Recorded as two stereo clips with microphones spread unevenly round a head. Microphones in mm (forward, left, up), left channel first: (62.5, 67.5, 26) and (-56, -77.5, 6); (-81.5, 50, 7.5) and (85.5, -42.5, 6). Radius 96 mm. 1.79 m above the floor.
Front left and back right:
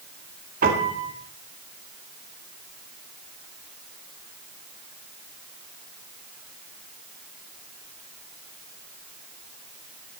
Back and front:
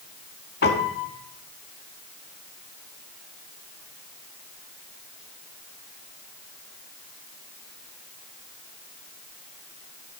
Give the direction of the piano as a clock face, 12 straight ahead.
6 o'clock.